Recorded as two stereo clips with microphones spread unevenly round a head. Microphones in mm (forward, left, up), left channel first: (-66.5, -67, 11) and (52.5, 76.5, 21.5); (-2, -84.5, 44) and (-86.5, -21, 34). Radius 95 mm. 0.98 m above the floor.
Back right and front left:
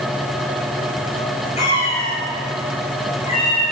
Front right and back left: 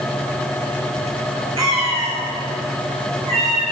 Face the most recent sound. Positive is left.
turn(degrees=165)